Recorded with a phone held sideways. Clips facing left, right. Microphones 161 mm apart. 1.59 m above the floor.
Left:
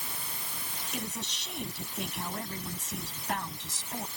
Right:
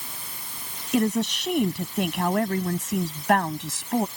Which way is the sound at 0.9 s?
80° right.